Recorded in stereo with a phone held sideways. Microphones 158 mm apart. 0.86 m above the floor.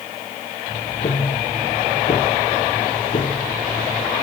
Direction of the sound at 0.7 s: 45° left (ahead or behind).